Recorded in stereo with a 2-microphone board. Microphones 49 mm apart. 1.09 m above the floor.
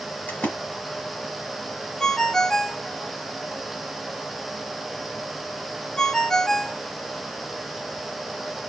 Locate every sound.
0.3 s a splash: 40° left (ahead or behind), 1.9 m
2.0 s a ringtone: 10° left (ahead or behind), 0.6 m